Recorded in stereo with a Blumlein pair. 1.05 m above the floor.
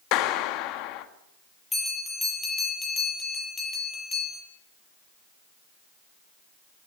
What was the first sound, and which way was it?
A clap, 40° left.